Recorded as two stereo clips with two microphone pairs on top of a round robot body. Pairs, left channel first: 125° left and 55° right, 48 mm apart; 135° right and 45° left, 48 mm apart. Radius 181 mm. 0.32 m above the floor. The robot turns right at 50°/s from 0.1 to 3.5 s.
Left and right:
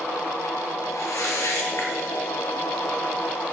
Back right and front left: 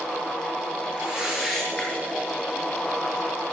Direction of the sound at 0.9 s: 105° left.